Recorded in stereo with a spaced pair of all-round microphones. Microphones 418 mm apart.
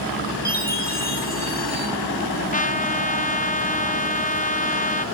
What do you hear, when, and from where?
0.5 s a chime: 20° left (ahead or behind), 9.5 m
2.5 s a trumpet: 20° left (ahead or behind), 0.7 m